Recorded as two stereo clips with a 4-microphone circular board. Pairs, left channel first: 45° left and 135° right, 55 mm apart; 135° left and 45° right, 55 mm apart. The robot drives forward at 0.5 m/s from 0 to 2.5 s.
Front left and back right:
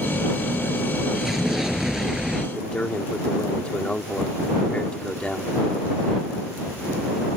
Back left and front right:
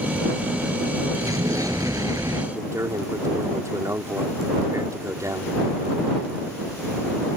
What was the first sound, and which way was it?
An explosion, 50° right.